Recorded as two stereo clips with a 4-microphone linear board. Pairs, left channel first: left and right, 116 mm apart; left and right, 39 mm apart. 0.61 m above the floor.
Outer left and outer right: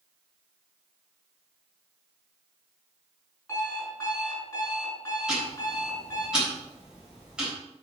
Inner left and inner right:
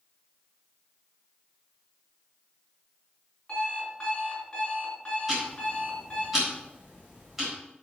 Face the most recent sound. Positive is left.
turn(degrees=-10)  # may be behind; listen again after turning